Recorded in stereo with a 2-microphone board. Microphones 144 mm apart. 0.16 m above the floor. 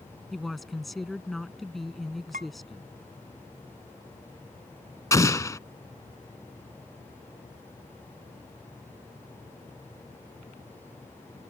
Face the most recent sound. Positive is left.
turn(degrees=25)  # may be behind; listen again after turning